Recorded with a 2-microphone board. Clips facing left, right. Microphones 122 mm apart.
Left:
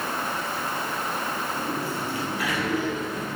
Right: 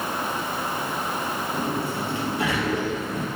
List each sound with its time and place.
1.5 s a sliding door: 25° right (ahead or behind), 3.5 m